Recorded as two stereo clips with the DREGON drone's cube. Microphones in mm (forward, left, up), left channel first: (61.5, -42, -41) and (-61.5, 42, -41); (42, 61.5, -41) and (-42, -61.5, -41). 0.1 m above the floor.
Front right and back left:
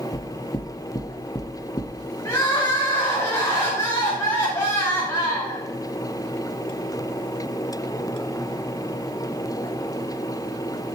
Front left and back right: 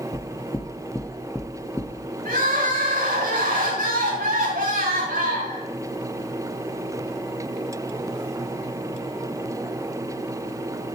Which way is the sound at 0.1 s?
5° right.